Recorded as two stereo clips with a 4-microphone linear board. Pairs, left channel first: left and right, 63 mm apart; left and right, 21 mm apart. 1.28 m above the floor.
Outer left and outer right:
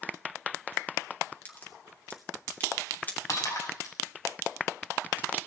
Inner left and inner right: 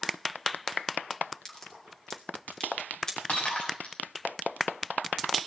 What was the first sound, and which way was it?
A crack, 30° left (ahead or behind).